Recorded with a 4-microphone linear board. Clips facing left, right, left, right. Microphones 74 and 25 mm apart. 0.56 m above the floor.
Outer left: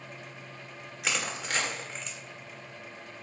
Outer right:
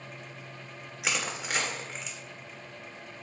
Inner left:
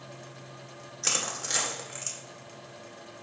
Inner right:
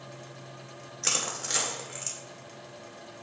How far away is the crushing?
About 1.8 m.